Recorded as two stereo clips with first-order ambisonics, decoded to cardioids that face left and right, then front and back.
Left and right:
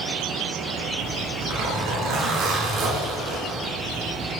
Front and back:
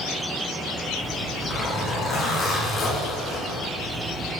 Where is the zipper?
65° right, 1.6 m.